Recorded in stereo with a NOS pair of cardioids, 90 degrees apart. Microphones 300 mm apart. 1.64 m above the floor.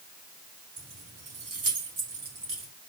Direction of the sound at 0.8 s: 65° right.